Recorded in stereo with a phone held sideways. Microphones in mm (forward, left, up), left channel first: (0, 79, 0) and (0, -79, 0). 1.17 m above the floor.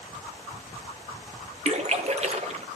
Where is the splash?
45° right (ahead or behind), 0.9 m.